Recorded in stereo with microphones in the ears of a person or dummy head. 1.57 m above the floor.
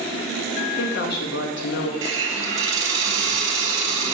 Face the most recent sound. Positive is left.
turn(degrees=-20)  # may be behind; listen again after turning